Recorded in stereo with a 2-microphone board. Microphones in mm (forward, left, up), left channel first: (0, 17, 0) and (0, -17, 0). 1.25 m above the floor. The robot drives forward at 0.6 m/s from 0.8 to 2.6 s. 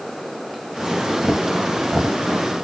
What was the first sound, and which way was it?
Only background noise.